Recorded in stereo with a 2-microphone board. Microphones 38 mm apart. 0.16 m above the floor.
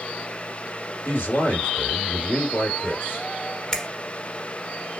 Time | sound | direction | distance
1.1 | a man speaking | 70° left (ahead or behind) | 3.5 m
3.7 | a finger snap | 20° left (ahead or behind) | 1.1 m